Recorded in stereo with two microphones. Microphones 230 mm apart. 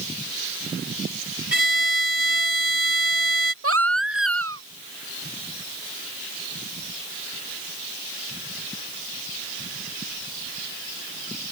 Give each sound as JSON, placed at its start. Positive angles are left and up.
{"t": 1.5, "sound": "a violin", "side_deg": 55}
{"t": 3.6, "sound": "a baby crying", "side_deg": -75}